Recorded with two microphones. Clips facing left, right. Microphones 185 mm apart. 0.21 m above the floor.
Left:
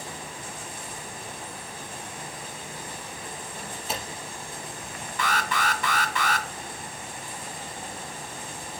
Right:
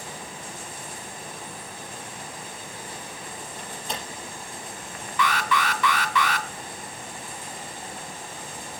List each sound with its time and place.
3.6 s a door slam: 5° left (ahead or behind), 4.5 m
5.2 s an alarm: 50° left (ahead or behind), 1.9 m